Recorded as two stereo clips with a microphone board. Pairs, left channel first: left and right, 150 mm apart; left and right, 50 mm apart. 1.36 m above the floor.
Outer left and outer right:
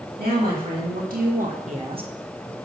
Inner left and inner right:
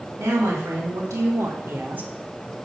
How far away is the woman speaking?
About 3 m.